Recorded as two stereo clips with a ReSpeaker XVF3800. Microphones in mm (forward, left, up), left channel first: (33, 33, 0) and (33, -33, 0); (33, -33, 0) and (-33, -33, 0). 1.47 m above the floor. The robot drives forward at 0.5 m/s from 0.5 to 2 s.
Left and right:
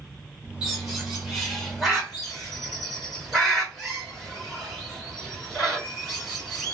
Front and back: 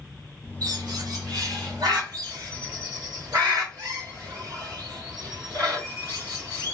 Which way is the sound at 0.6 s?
170° right.